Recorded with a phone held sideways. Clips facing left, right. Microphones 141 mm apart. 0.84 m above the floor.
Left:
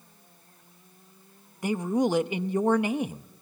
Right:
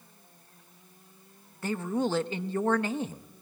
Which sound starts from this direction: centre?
A man speaking, at 1.6 s.